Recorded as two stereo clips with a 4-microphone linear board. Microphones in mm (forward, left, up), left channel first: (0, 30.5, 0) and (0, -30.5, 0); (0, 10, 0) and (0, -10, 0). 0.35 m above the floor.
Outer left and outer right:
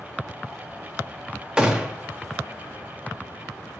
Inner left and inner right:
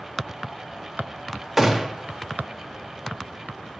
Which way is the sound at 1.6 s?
15° right (ahead or behind).